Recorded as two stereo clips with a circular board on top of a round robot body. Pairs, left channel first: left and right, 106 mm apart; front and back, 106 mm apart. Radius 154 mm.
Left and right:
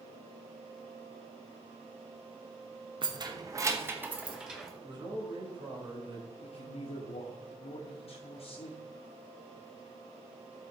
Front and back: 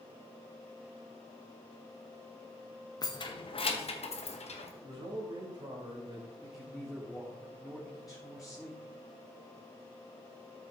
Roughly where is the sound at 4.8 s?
Behind right.